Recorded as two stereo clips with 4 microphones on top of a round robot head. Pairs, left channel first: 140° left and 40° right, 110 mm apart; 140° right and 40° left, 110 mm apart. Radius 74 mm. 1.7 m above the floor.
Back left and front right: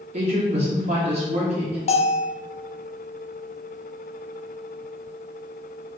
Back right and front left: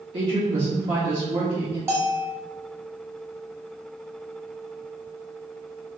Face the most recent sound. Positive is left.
turn(degrees=110)